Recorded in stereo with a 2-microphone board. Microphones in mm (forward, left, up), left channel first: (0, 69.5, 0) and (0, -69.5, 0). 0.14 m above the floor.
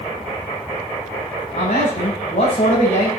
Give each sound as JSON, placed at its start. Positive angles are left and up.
{"t": 1.5, "sound": "a man speaking", "side_deg": 80, "distance_m": 9.5}